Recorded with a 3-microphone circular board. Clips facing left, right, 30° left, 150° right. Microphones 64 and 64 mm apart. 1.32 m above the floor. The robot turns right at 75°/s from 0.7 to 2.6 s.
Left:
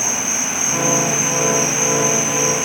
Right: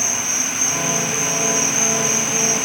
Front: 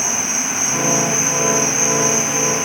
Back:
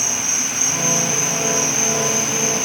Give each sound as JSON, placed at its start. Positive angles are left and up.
{"t": 0.0, "sound": "an insect", "azimuth_deg": 80, "distance_m": 2.5}